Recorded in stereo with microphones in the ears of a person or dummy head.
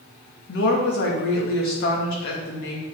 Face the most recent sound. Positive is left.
turn(degrees=70)  # may be behind; listen again after turning